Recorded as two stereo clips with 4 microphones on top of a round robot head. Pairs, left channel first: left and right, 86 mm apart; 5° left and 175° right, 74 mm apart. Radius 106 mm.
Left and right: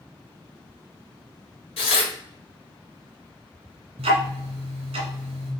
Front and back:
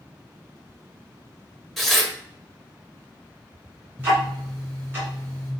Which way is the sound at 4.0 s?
105° right.